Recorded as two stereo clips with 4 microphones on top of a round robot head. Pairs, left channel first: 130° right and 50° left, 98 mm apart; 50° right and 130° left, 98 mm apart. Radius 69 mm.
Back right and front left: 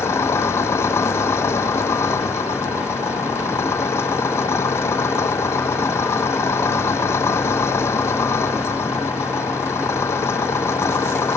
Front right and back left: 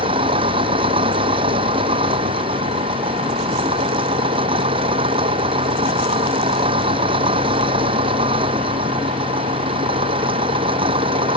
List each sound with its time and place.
0.0 s an engine running: 165° left